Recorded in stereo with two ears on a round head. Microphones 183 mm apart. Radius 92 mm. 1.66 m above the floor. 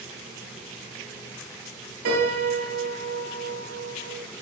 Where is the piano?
70° right (ahead or behind), 1.4 m.